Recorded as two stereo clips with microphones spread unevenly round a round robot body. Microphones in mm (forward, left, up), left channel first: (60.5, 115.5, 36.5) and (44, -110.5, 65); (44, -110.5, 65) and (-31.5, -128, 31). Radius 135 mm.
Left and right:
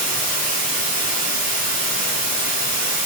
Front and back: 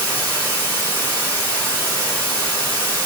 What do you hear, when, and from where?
0.0 s running water: 105° left, 1.3 m